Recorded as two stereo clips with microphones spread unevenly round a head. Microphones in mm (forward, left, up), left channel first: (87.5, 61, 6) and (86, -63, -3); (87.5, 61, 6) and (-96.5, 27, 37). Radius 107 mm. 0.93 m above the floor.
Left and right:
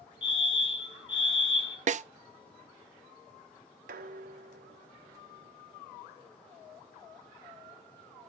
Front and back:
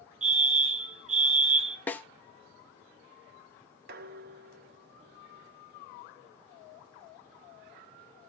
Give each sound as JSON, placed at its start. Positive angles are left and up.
{"t": 0.2, "sound": "a fire alarm", "azimuth_deg": 145, "distance_m": 2.0}
{"t": 1.9, "sound": "a snare drum", "azimuth_deg": -70, "distance_m": 0.5}
{"t": 3.9, "sound": "dishes clattering", "azimuth_deg": -120, "distance_m": 0.7}